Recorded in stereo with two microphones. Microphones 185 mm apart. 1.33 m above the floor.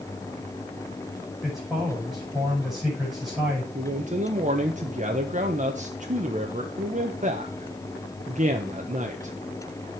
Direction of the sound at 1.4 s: Centre (ahead or behind).